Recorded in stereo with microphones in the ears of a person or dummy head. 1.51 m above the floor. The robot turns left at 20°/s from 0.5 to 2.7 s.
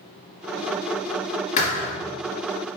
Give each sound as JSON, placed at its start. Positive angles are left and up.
{"t": 1.6, "sound": "a thud", "side_deg": 40, "distance_m": 2.5}